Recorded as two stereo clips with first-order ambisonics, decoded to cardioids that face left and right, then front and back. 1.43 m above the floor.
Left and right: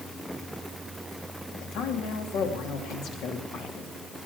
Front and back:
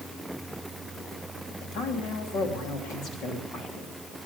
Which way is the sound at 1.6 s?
50° left.